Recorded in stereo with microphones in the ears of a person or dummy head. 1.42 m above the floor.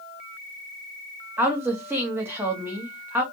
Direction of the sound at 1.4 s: 15° right (ahead or behind).